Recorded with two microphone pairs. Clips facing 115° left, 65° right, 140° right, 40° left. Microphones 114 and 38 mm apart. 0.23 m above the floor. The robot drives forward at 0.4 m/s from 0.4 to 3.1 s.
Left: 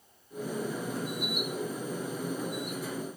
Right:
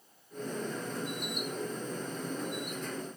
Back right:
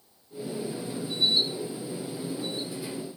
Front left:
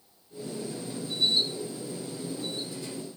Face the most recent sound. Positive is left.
No sound to turn to.